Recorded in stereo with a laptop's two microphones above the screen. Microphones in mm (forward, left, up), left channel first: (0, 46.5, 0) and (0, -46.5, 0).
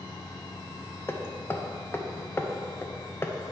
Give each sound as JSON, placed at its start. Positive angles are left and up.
{"t": 0.0, "sound": "a machine running", "side_deg": 40, "distance_m": 0.9}
{"t": 1.1, "sound": "hammering", "side_deg": 25, "distance_m": 0.7}